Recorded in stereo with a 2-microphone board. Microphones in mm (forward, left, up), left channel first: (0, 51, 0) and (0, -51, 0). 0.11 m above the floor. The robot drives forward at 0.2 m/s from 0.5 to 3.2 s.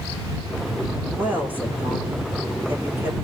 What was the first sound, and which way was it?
A woman speaking, 20° right (ahead or behind).